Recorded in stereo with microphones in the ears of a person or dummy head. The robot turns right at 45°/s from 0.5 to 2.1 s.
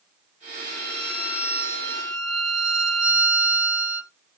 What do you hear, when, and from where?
0.7 s a violin: 105° left, 1.3 m; by 4.1 s 170° left, 1.3 m